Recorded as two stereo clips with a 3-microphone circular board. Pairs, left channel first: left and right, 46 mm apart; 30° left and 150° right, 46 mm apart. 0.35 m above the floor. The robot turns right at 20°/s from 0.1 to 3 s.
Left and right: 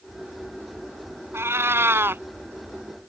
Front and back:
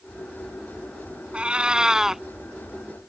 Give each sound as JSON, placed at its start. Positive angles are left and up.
{"t": 1.3, "sound": "a cat meowing", "azimuth_deg": -85}